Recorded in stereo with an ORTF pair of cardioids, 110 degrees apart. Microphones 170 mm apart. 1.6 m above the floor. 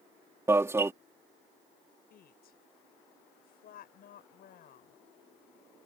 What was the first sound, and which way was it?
An alarm, 15° right.